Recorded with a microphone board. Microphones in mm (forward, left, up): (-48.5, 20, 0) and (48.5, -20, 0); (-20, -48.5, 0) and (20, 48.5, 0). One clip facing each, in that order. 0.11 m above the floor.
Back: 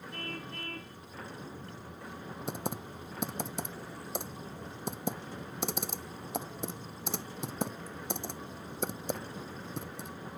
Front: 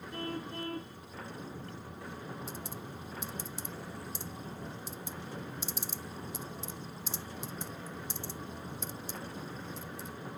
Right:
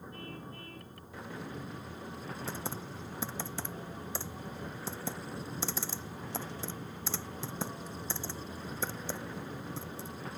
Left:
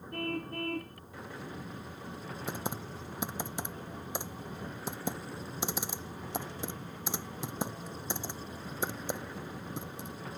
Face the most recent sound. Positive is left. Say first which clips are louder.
# back 5 dB, left 5 dB
turn(degrees=140)